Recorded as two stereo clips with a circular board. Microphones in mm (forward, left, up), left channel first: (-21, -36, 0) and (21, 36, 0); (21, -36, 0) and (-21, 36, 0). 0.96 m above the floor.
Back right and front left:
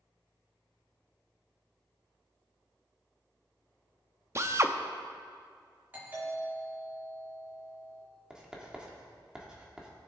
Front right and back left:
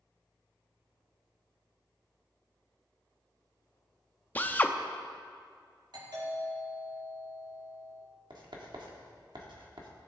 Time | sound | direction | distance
4.3 | a drill | 5° left | 0.6 m
5.9 | a doorbell | 125° left | 4 m
8.3 | writing | 140° left | 1.6 m